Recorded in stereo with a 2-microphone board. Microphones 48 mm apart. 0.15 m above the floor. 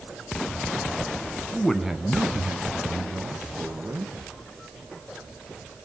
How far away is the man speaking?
About 1.1 m.